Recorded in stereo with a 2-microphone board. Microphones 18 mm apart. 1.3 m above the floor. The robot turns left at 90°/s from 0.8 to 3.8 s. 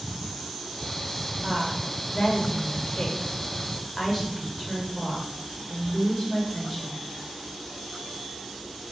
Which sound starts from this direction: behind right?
A woman speaking, at 1.4 s.